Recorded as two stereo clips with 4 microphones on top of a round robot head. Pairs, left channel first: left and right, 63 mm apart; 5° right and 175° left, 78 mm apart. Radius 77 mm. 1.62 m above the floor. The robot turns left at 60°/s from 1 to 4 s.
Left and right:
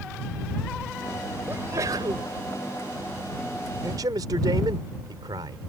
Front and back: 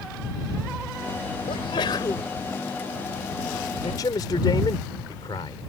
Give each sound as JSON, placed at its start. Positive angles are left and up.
{"t": 1.5, "sound": "a sneeze", "azimuth_deg": -20}
{"t": 3.8, "sound": "a man speaking", "azimuth_deg": -40}